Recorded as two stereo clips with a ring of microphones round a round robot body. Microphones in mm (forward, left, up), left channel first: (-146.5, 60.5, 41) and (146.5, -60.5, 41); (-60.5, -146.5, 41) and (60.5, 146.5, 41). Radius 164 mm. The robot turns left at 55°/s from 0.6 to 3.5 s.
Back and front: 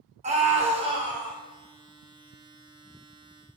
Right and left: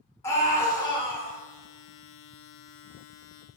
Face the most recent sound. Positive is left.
turn(degrees=155)